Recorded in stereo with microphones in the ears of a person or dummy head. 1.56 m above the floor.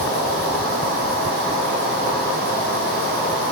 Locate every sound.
0.0 s an insect: 5° left (ahead or behind), 1.9 m